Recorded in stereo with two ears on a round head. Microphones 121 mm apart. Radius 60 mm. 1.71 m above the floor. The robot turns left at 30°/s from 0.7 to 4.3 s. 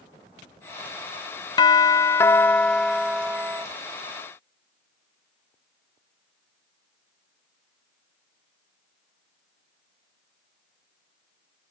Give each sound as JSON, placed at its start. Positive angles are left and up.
{"t": 1.6, "sound": "a doorbell", "azimuth_deg": 45, "distance_m": 0.6}